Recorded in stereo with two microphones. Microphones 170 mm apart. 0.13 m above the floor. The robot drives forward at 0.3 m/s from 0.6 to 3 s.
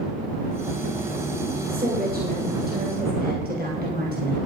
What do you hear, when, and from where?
1.7 s a woman speaking: 60° right (ahead or behind), 3 m; by 4.4 s 65° right (ahead or behind), 3 m